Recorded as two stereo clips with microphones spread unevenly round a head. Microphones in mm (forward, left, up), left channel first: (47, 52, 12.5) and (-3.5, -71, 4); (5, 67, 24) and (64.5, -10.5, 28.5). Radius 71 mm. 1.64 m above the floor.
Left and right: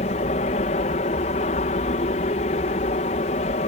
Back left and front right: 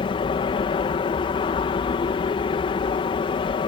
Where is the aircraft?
105° left.